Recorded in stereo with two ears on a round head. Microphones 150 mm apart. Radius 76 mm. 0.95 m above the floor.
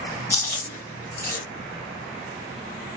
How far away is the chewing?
About 1.2 m.